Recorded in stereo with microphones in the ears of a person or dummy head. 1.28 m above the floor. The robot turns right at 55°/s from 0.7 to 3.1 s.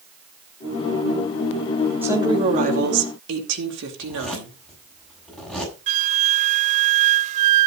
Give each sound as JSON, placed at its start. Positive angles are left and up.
{"t": 2.0, "sound": "a woman speaking", "azimuth_deg": -175, "distance_m": 4.0}
{"t": 4.0, "sound": "a zipper", "side_deg": 10, "distance_m": 7.5}
{"t": 5.9, "sound": "a flute", "side_deg": -45, "distance_m": 0.6}